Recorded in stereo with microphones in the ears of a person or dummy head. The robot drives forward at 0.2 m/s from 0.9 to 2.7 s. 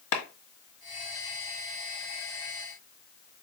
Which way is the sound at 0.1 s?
75° left (ahead or behind).